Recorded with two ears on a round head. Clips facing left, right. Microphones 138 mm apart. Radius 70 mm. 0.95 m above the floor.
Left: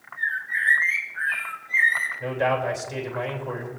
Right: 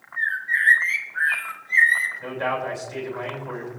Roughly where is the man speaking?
Left.